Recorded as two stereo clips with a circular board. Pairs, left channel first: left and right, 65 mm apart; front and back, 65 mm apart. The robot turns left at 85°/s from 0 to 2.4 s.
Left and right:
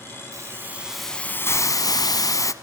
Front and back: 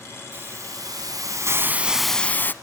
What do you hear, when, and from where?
0.3 s a hiss: 120° right, 1.0 m; by 2.5 s 60° left, 1.0 m